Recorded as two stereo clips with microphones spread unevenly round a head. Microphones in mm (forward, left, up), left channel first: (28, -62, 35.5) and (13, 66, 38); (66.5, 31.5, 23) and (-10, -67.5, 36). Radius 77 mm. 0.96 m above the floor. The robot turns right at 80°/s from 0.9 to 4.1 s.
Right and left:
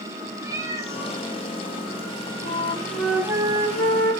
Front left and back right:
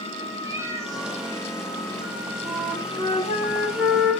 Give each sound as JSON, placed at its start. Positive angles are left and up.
{"t": 0.4, "sound": "a cat meowing", "azimuth_deg": 165, "distance_m": 3.0}
{"t": 2.5, "sound": "a flute", "azimuth_deg": -45, "distance_m": 3.5}